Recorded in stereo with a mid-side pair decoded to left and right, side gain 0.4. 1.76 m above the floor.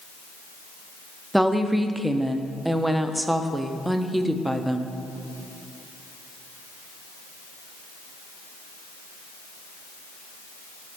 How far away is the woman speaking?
About 0.6 m.